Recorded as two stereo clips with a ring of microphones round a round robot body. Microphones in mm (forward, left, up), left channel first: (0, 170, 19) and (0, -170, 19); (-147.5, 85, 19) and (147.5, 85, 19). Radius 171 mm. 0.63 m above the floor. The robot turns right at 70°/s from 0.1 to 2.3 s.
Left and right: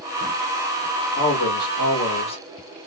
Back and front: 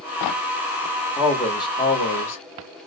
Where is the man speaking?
75° left, 1.4 m; by 2.4 s 155° left, 1.4 m.